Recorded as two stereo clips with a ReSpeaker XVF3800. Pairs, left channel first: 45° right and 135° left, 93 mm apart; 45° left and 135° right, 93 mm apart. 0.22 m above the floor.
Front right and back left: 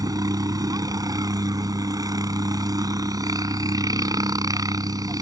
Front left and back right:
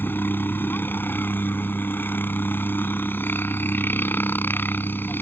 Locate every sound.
0.0 s a helicopter: 105° left